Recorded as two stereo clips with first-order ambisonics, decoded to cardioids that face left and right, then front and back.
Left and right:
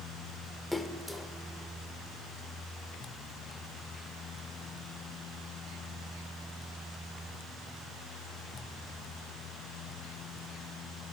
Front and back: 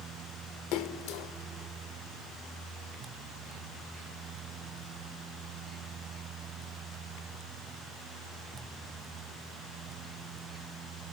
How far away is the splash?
About 1.0 m.